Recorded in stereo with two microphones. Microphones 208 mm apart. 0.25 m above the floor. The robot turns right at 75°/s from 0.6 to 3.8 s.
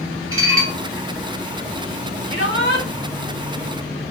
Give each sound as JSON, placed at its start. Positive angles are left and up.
{"t": 0.3, "sound": "dishes clattering", "side_deg": -75, "distance_m": 2.5}
{"t": 2.3, "sound": "a shout", "azimuth_deg": 80, "distance_m": 4.5}